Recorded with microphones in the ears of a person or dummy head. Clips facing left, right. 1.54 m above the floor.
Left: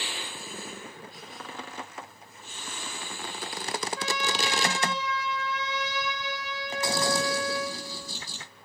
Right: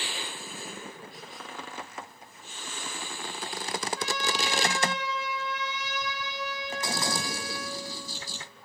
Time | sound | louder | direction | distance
4.0 | a trumpet | left 1 dB | 65° left (ahead or behind) | 3.5 m